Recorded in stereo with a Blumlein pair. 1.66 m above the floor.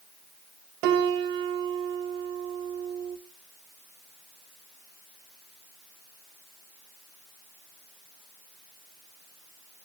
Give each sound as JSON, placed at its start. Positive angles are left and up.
{"t": 0.8, "sound": "a piano", "azimuth_deg": -40, "distance_m": 1.1}